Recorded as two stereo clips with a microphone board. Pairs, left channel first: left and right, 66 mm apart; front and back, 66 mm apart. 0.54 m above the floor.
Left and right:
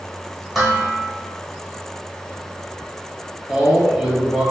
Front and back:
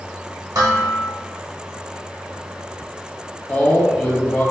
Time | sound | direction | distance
0.6 | dishes clattering | 175° right | 1.4 m
3.5 | a man speaking | 35° right | 0.8 m